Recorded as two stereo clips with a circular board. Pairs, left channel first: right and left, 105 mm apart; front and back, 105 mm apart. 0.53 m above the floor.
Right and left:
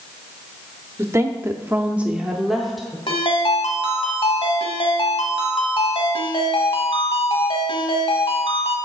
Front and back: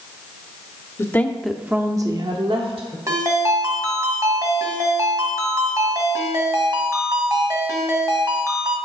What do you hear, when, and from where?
1.0 s a woman speaking: 45° left, 0.8 m; by 3.0 s straight behind, 1.3 m
3.1 s a ringtone: 125° right, 1.5 m